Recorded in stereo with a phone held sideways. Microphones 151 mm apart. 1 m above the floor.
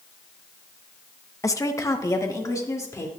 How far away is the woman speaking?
About 0.9 m.